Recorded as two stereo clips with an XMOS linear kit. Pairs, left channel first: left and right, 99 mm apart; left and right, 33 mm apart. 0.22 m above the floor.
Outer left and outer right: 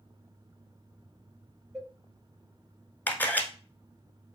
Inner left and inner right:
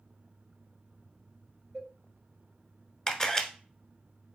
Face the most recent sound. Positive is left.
turn(degrees=20)  # may be behind; listen again after turning